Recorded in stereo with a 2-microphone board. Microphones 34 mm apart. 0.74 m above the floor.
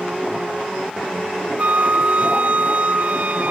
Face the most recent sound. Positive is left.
turn(degrees=-55)  # may be behind; listen again after turning